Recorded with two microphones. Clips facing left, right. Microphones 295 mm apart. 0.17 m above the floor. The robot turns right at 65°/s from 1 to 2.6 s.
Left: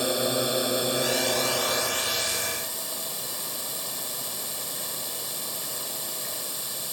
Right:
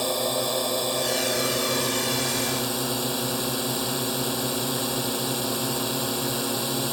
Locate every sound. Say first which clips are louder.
0.0 s a drone: left 1 dB; 170° left; by 7.0 s 90° right